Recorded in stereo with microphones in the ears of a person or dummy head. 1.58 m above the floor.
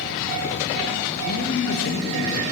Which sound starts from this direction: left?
A man speaking, at 1.2 s.